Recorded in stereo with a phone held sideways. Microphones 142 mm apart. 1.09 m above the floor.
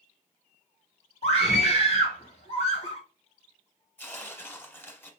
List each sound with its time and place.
1.2 s a scream: 45° left (ahead or behind), 2.5 m
4.0 s tearing paper: 15° left (ahead or behind), 0.9 m